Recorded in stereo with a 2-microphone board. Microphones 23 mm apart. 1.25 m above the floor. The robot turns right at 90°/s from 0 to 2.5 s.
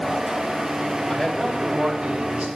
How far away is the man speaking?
About 3 m.